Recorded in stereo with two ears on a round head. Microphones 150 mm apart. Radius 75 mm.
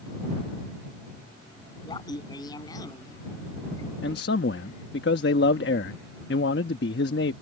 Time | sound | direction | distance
1.9 | laughter | 25° left (ahead or behind) | ?
4.0 | a man speaking | 70° left (ahead or behind) | ?